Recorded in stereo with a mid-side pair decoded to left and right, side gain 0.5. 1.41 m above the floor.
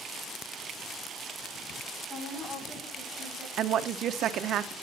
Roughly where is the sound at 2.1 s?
Ahead left.